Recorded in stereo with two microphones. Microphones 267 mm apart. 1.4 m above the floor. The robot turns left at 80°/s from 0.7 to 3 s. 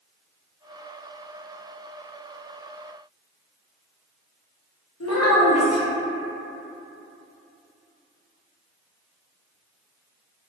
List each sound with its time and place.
5.0 s a child speaking: 70° left (ahead or behind), 0.6 m